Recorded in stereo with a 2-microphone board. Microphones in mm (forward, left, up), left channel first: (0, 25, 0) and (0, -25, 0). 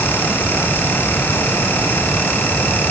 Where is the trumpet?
I don't hear a trumpet.